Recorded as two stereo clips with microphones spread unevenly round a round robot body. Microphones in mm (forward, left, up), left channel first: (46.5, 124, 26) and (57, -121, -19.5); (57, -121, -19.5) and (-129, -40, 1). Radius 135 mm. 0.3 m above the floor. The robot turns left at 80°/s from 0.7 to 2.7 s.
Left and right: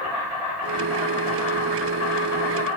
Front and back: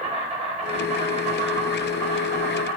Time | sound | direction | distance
0.0 | an insect | 155° right | 0.8 m